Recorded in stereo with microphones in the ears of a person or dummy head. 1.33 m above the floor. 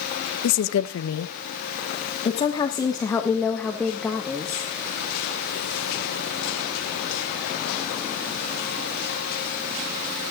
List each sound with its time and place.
0.4 s a woman speaking: 85° left, 1.1 m; by 4.7 s centre (ahead or behind), 2 m